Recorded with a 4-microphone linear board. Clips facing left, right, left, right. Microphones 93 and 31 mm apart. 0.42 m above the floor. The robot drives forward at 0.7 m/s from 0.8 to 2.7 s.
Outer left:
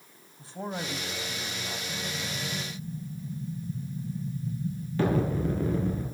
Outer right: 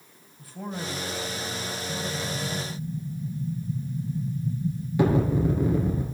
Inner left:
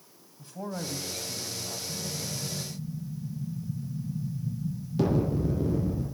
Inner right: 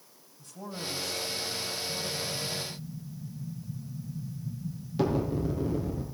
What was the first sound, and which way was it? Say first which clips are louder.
A man speaking: even, inner left 3 dB; 25° left (ahead or behind).